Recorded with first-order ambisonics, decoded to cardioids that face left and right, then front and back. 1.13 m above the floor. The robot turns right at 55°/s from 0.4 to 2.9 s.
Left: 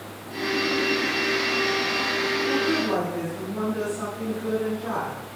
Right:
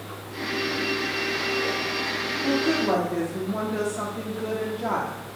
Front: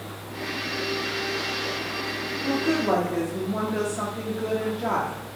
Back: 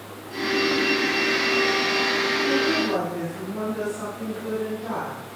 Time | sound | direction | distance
2.4 | a woman speaking | 70° right | 2 m